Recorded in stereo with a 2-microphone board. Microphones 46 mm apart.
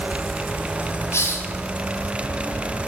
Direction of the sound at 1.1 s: 65° left (ahead or behind).